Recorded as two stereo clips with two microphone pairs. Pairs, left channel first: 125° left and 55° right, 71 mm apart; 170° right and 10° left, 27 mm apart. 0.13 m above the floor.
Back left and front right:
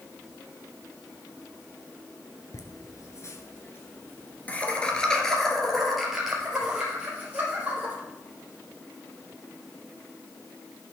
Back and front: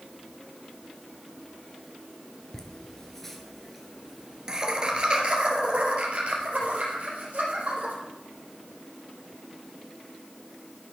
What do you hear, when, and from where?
2.5 s laughter: 120° left, 2 m; by 7.9 s 20° left, 4 m